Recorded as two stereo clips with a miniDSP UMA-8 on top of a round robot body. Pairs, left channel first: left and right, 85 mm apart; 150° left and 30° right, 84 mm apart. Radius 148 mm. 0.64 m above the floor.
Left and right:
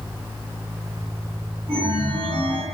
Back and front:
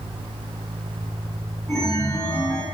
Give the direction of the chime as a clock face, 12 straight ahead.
4 o'clock.